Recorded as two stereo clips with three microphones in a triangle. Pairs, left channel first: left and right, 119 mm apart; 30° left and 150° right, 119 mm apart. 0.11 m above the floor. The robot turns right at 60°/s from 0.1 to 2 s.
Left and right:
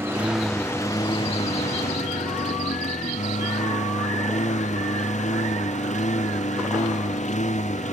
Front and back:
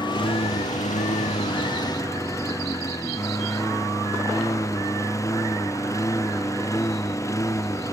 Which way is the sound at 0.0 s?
20° right.